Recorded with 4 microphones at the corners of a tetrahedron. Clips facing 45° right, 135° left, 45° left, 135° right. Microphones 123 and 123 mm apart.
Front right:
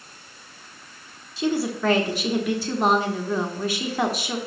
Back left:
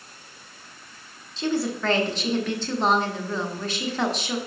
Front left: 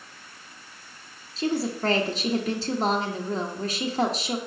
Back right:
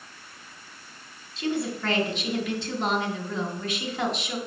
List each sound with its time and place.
1.4 s a woman speaking: 30° left, 0.9 m